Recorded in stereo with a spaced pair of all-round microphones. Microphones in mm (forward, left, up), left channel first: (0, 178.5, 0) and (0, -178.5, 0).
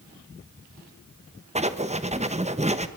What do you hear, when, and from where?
1.6 s writing: 20° right (ahead or behind), 1.1 m